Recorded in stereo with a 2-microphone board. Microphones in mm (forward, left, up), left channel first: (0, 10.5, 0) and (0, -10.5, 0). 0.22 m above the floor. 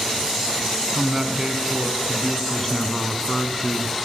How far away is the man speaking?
About 2 m.